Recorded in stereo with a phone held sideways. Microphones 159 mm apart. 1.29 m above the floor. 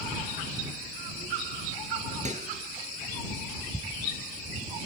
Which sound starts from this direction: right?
A microwave, at 2.2 s.